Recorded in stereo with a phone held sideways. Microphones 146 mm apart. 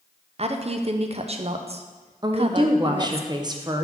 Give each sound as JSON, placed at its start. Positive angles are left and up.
{"t": 0.4, "sound": "a woman speaking", "side_deg": -45, "distance_m": 0.5}
{"t": 2.2, "sound": "a woman speaking", "side_deg": -30, "distance_m": 0.6}